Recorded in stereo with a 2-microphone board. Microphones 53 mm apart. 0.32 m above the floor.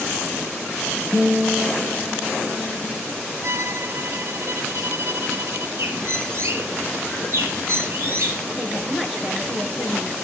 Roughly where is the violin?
Right.